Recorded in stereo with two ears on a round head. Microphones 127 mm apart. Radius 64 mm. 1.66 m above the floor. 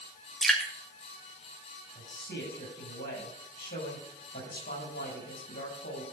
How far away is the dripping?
About 2.5 m.